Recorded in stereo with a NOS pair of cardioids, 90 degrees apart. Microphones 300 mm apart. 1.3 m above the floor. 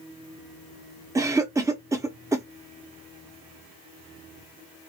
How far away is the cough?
About 0.6 m.